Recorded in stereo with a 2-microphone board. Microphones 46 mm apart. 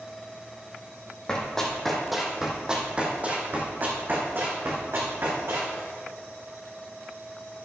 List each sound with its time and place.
1.3 s running footsteps: 15° left (ahead or behind), 2 m; by 5.8 s 60° right (ahead or behind), 3.5 m